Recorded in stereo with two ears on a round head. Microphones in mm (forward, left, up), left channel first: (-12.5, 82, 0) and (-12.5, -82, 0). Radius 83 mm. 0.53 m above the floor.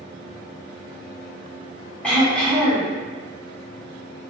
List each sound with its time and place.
2.0 s throat clearing: 5° left (ahead or behind), 1.3 m